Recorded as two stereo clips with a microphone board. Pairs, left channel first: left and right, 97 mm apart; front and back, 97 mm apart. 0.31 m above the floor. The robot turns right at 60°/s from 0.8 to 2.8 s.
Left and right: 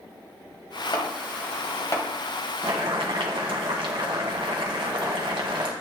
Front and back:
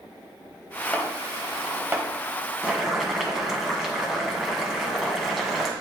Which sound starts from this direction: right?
Boiling, at 2.6 s.